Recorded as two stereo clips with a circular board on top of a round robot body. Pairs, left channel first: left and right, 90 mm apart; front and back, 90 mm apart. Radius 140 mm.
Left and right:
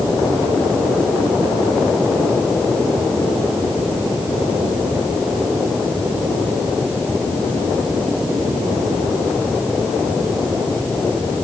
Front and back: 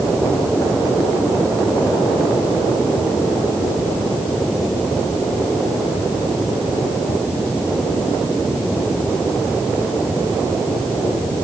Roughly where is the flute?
I don't hear a flute.